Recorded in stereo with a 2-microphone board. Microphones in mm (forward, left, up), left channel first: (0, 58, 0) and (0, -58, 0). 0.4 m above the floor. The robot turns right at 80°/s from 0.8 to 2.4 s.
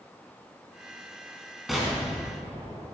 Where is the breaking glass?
I don't hear breaking glass.